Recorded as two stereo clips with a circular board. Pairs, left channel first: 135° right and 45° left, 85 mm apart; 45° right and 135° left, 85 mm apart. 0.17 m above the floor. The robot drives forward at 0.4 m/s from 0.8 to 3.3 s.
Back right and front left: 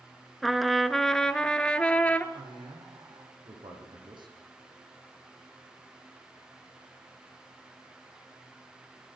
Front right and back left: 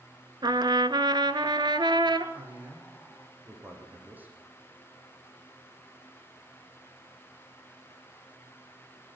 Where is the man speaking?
65° left, 9.5 m.